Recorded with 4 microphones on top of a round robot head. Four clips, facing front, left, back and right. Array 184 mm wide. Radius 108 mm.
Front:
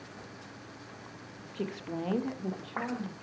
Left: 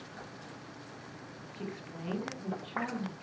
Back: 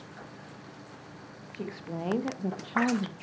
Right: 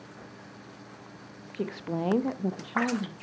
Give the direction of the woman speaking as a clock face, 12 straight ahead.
2 o'clock.